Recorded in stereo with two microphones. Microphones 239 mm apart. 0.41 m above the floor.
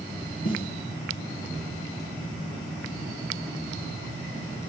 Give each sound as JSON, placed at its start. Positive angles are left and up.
{"t": 0.5, "sound": "a snare drum", "side_deg": 40, "distance_m": 5.5}